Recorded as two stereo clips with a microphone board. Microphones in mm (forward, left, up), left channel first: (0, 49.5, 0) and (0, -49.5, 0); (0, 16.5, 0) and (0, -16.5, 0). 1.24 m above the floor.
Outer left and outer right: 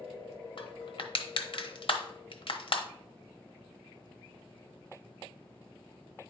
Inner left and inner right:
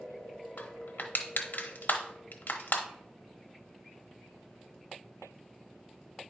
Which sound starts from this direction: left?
Crushing, at 0.6 s.